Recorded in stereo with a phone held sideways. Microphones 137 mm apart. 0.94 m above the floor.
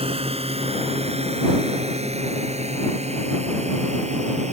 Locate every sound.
0.0 s a drone: 45° right (ahead or behind); by 4.5 s 55° right (ahead or behind)